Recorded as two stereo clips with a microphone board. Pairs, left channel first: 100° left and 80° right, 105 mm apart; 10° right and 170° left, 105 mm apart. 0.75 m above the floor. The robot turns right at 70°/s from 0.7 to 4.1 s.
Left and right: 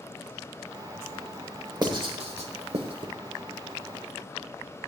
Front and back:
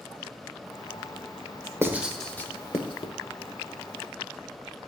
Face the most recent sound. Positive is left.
turn(degrees=35)